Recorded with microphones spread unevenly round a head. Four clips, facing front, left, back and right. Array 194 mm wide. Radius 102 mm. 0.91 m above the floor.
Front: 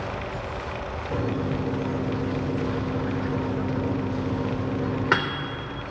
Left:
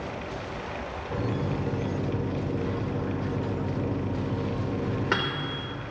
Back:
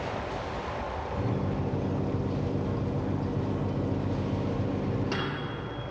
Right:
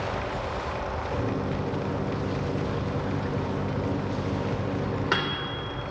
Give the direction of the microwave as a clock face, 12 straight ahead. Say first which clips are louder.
Left 1 dB, front 6 dB; 12 o'clock.